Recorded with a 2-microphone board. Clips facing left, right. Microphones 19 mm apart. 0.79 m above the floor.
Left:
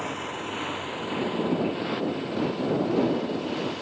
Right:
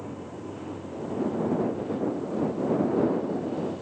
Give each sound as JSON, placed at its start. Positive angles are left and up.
{"t": 0.0, "sound": "a motorcycle", "side_deg": 85}